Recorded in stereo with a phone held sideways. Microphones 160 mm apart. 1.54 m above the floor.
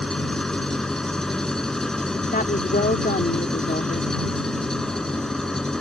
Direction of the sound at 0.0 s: 5° left (ahead or behind).